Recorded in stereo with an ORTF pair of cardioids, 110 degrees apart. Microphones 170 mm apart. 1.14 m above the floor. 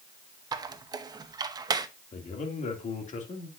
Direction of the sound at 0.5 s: 25° right.